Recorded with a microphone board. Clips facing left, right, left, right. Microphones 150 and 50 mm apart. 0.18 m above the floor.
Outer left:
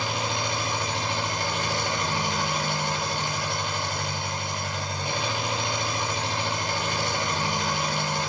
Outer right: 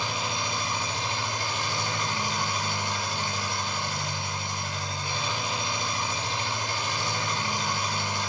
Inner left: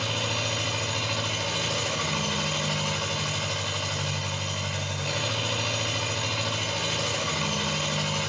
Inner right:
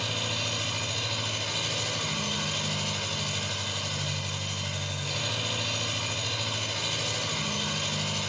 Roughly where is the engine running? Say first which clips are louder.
Outer left 3 dB, inner left 3 dB; left.